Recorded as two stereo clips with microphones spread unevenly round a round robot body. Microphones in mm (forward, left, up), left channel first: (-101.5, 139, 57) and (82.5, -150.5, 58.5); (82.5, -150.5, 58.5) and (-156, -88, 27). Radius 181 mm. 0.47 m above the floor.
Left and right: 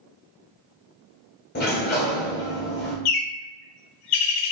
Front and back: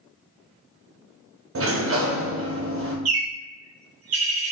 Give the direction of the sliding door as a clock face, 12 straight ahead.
6 o'clock.